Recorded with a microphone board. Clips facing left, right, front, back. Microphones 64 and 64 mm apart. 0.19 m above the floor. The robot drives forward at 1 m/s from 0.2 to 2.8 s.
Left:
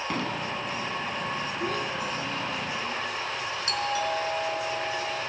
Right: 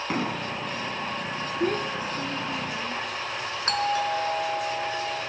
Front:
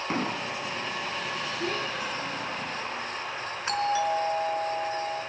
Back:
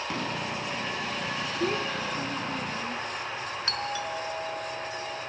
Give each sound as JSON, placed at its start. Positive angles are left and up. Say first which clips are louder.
{"t": 0.1, "sound": "an explosion", "louder": "right 3 dB, front 3 dB", "azimuth_deg": -35, "distance_m": 1.4}
{"t": 1.6, "sound": "a child speaking", "louder": "right 6 dB, back 4 dB", "azimuth_deg": -115, "distance_m": 1.6}
{"t": 3.7, "sound": "a doorbell", "louder": "right 4 dB, front 9 dB", "azimuth_deg": -70, "distance_m": 3.5}